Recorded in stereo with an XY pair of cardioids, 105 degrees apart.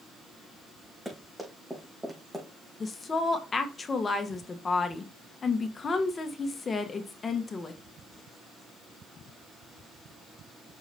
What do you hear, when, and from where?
1.1 s running footsteps: straight ahead, 5.5 m; by 2.7 s 5° right, 3.5 m
2.8 s a woman speaking: 35° left, 1.4 m